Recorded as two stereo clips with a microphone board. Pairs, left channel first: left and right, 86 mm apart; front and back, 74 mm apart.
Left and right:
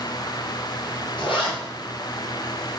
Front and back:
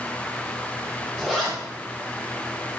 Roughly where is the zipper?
Left.